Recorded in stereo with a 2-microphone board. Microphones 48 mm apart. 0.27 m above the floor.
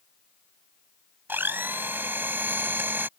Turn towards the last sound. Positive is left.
turn(degrees=-45)  # may be behind; listen again after turning